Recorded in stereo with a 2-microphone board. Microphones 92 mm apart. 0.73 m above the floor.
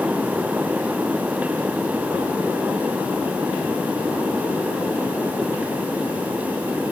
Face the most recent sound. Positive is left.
No sound to turn to.